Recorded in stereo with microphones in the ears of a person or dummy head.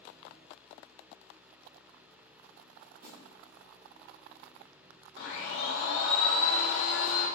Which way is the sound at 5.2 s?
65° left (ahead or behind).